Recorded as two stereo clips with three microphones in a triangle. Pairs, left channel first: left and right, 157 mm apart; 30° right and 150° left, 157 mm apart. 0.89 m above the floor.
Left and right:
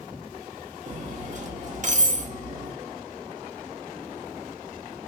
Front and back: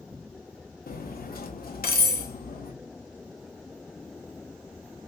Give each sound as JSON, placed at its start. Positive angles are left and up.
{"t": 0.9, "sound": "cutlery clinking", "azimuth_deg": -50, "distance_m": 0.7}